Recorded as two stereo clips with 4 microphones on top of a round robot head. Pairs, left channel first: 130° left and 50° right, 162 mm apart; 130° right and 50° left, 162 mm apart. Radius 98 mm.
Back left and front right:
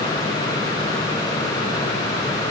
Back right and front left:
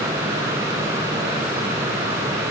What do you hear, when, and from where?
Only background noise.